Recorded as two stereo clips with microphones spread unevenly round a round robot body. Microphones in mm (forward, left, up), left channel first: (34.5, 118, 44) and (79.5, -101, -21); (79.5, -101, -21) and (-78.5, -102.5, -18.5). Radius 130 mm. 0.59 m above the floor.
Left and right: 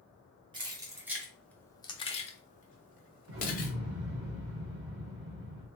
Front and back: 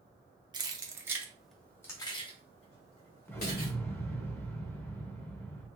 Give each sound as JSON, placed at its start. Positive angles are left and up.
{"t": 0.5, "sound": "keys jangling", "azimuth_deg": -125, "distance_m": 0.8}
{"t": 3.3, "sound": "an explosion", "azimuth_deg": -75, "distance_m": 1.4}